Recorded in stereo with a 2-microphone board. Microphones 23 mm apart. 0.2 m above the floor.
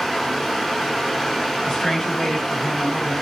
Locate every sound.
0.0 s running water: 10° left (ahead or behind), 1.1 m
1.6 s a woman speaking: 35° left (ahead or behind), 1.3 m